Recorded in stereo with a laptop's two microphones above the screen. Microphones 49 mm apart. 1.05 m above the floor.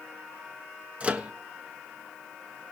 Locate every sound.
1.0 s a microwave: 25° right (ahead or behind), 1.1 m